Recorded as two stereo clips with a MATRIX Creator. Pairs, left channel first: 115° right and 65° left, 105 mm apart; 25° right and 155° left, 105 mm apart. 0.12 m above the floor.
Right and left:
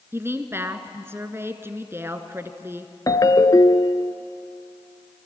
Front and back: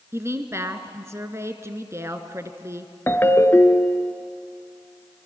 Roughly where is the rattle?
I don't hear a rattle.